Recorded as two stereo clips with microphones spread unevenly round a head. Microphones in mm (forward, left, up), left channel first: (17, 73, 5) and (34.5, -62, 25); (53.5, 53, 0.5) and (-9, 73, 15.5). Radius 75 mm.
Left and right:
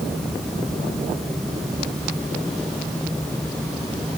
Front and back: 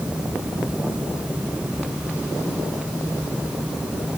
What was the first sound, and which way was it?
Only background noise.